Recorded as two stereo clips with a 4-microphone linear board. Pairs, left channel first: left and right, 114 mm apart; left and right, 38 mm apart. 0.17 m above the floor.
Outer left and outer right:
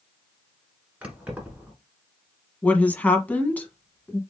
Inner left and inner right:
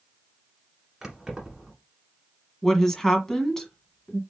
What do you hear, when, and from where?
1.0 s keys jangling: 10° right (ahead or behind), 1.5 m
2.6 s a woman speaking: 15° left (ahead or behind), 1.0 m